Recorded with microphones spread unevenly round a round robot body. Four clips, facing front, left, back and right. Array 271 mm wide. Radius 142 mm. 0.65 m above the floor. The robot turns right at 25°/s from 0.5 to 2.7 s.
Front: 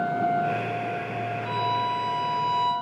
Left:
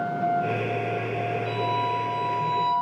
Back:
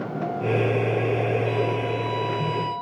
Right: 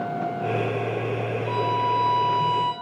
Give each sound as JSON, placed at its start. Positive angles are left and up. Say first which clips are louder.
{"t": 1.4, "sound": "a violin", "louder": "right 5 dB, back 1 dB", "azimuth_deg": 175, "distance_m": 5.5}